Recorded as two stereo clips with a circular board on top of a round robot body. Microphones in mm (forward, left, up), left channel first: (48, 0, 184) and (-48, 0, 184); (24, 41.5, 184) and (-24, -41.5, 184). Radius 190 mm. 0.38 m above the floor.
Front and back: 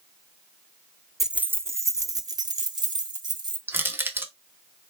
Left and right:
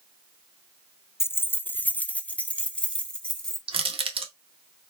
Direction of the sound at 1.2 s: 95° left.